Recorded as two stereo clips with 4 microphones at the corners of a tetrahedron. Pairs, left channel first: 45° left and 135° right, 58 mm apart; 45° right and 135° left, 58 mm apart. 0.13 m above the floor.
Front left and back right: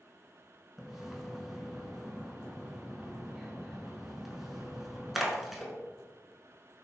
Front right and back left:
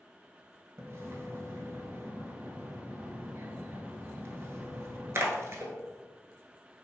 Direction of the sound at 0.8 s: 140° left.